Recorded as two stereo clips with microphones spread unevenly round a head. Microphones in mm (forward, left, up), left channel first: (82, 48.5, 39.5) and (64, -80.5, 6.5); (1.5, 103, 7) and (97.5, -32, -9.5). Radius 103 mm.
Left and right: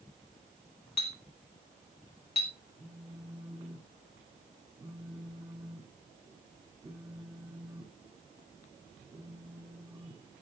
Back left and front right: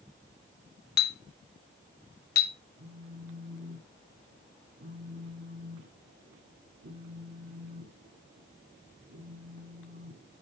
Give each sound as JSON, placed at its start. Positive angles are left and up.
{"t": 1.0, "sound": "a clink", "azimuth_deg": 135, "distance_m": 1.0}
{"t": 2.8, "sound": "a phone buzzing", "azimuth_deg": -30, "distance_m": 7.0}